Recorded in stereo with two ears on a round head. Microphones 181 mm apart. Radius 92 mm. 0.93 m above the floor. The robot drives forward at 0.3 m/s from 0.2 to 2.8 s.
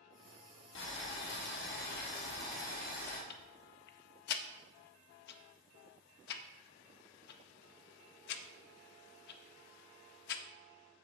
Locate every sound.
0.8 s boiling: 65° left (ahead or behind), 1.3 m; by 3.2 s 45° left (ahead or behind), 1.6 m
3.3 s ticking: 50° left (ahead or behind), 0.5 m